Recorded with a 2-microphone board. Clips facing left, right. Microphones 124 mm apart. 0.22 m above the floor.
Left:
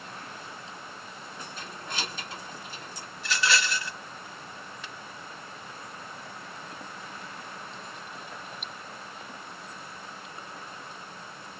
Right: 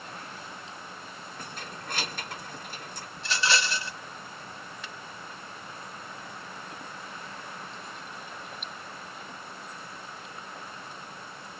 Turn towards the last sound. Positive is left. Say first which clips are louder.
# even
turn(degrees=-30)  # may be behind; listen again after turning